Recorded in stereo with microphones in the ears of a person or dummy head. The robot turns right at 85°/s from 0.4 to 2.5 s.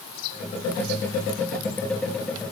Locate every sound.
Only background noise.